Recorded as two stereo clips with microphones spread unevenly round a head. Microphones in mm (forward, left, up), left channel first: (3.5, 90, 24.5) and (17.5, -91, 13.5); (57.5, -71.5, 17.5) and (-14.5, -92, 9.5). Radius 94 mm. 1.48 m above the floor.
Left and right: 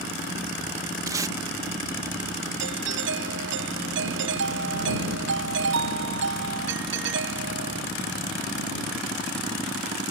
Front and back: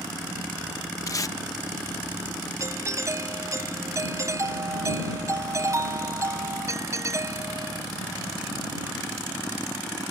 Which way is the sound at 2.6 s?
115° right.